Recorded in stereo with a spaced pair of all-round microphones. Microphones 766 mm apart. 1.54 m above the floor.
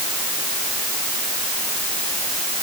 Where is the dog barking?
I don't hear a dog barking.